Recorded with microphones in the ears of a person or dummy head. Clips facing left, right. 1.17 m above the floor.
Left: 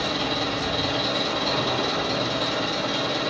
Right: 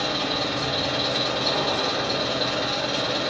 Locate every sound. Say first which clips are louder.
0.0 s an engine running: even; centre (ahead or behind), 1.0 m